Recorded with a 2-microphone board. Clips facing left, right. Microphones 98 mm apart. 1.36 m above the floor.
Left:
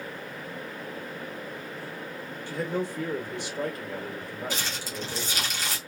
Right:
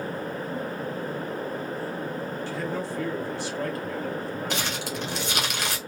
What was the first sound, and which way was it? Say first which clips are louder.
A man speaking: left 4 dB; 20° left (ahead or behind).